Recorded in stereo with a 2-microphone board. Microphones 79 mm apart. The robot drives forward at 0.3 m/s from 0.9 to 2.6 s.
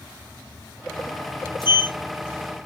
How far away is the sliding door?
About 1.1 m.